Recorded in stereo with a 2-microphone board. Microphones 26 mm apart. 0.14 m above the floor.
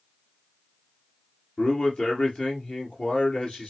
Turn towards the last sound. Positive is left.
turn(degrees=50)  # may be behind; listen again after turning